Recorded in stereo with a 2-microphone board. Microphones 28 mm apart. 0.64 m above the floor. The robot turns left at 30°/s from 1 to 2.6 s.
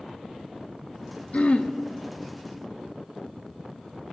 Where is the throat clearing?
50° left (ahead or behind), 0.5 m.